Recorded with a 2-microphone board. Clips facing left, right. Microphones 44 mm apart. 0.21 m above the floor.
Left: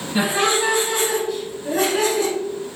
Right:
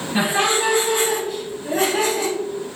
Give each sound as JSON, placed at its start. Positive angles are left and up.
{"t": 0.1, "sound": "laughter", "side_deg": -35, "distance_m": 1.8}